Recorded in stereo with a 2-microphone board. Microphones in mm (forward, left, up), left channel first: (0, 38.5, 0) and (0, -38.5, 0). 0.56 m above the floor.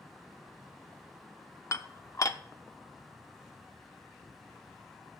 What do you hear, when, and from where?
1.7 s dishes clattering: 45° left (ahead or behind), 0.6 m